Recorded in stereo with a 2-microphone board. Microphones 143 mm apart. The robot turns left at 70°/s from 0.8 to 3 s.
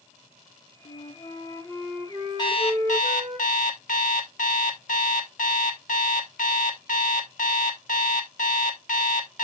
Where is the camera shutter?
I don't hear a camera shutter.